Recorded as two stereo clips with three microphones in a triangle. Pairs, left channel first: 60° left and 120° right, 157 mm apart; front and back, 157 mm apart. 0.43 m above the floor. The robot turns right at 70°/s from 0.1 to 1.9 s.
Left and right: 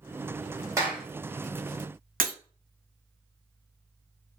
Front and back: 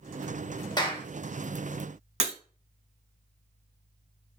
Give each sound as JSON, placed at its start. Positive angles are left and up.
{"t": 0.8, "sound": "a clap", "azimuth_deg": -55, "distance_m": 0.9}
{"t": 2.2, "sound": "breaking glass", "azimuth_deg": -135, "distance_m": 0.7}